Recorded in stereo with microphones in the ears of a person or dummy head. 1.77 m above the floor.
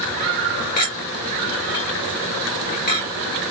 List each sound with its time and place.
0.8 s a clink: 40° left (ahead or behind), 1.9 m